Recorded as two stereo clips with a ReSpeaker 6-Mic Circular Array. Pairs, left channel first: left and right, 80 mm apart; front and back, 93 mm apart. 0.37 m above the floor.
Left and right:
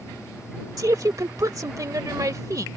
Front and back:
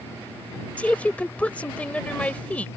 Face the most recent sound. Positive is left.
turn(degrees=-70)